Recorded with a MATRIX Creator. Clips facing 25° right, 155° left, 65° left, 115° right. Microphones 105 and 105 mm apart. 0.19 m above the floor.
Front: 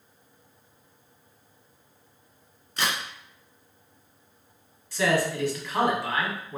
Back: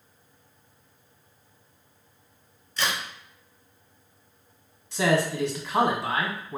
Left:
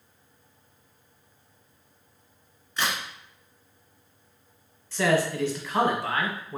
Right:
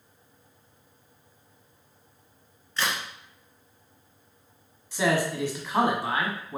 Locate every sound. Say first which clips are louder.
2.8 s a crack: even, even; 5° right, 1.5 m
4.9 s a man speaking: back 1 dB, left 1 dB; 170° right, 1.2 m